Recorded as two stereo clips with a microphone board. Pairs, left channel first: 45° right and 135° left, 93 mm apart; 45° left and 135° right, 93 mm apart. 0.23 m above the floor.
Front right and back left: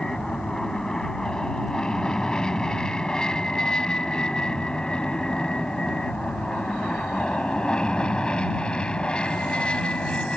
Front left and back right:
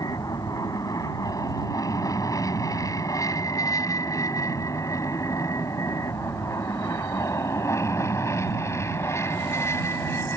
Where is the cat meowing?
I don't hear a cat meowing.